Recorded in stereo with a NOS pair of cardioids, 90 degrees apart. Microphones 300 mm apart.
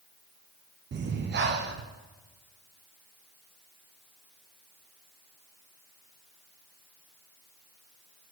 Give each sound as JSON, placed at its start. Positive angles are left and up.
{"t": 0.9, "sound": "breathing", "azimuth_deg": -40, "distance_m": 1.0}